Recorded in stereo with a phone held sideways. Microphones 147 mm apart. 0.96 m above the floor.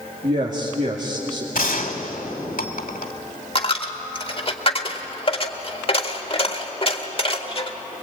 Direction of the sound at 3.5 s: 40° left (ahead or behind).